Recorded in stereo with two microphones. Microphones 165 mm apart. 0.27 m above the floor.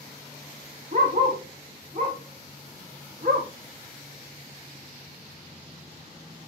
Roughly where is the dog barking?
Right.